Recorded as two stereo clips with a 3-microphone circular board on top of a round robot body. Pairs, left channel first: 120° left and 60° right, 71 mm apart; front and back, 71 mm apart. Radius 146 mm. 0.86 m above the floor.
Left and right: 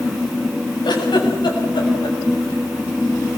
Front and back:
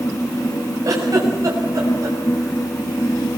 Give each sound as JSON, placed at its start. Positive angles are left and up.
{"t": 0.8, "sound": "a giggle", "azimuth_deg": 135, "distance_m": 7.5}